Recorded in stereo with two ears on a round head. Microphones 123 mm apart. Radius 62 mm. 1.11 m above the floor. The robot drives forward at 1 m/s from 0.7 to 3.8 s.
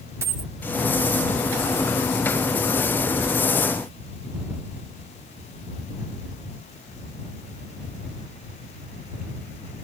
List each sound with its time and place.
0.2 s a dropped coin: 20° right (ahead or behind)